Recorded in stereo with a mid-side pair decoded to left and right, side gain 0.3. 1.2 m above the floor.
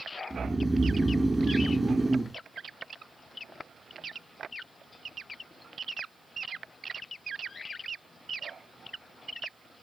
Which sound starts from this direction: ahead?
Snoring, at 0.3 s.